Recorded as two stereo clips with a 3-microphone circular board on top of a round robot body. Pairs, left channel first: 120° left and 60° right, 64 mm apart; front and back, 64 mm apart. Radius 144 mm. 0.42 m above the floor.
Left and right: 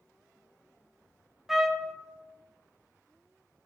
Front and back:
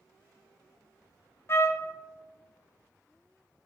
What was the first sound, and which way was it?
A trumpet, 25° left.